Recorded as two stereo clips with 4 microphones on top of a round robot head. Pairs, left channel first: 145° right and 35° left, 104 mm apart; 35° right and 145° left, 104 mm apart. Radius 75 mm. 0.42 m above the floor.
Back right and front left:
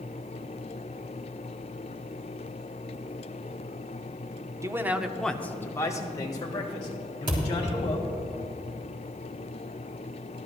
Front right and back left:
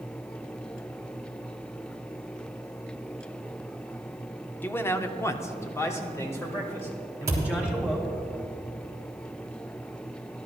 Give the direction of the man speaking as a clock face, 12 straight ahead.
11 o'clock.